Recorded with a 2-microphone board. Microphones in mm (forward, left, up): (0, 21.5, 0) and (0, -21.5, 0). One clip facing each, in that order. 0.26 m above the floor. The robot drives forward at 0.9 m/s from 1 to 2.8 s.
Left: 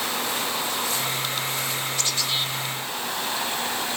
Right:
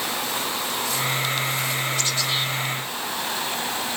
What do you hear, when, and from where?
Only background noise.